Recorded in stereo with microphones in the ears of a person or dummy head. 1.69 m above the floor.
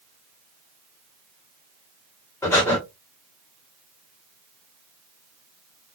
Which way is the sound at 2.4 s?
10° left (ahead or behind).